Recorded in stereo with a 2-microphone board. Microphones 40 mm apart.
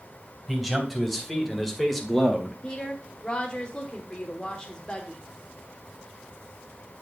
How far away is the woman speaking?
About 1.0 m.